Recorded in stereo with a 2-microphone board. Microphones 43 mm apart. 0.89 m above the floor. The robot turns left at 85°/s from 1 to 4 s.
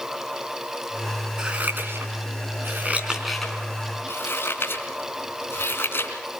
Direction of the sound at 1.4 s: 15° right (ahead or behind).